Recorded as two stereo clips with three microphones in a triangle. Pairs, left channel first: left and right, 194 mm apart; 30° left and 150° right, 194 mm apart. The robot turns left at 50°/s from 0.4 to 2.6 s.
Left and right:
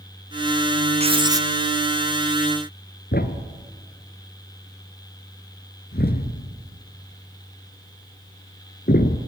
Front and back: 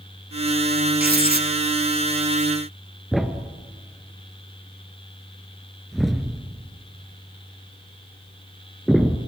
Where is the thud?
120° left, 1.3 m.